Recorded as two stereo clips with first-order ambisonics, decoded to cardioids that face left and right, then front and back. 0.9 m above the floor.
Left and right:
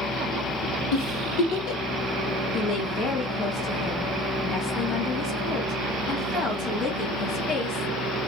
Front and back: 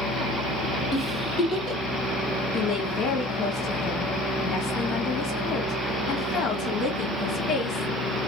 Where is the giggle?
75° left, 1.3 m.